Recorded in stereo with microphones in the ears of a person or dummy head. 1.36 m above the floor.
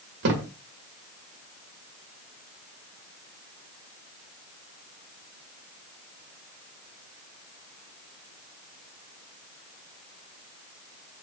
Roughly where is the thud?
Right.